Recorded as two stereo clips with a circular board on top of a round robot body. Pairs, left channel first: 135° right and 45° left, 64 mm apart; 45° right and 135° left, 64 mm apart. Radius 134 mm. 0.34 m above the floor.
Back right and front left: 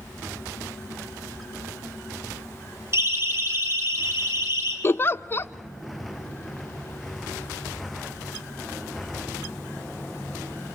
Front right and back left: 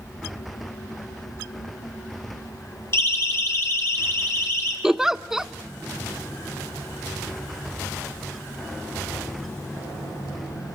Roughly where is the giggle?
Behind right.